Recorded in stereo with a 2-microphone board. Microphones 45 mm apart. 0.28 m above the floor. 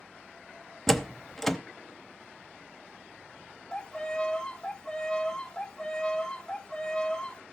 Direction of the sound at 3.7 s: 20° left (ahead or behind).